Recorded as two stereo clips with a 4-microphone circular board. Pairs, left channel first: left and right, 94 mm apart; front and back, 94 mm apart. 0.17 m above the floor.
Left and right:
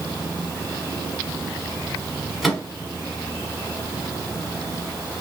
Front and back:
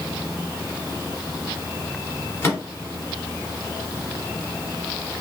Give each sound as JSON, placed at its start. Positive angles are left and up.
{"t": 2.4, "sound": "a microwave", "azimuth_deg": 5, "distance_m": 1.2}